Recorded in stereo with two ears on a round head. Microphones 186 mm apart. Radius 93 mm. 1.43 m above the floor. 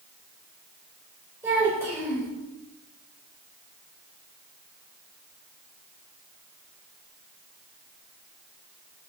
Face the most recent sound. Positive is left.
turn(degrees=-10)  # may be behind; listen again after turning